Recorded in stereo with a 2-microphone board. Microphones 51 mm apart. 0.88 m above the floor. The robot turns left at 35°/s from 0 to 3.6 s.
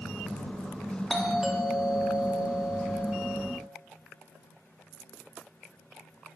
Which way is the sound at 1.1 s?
5° right (ahead or behind).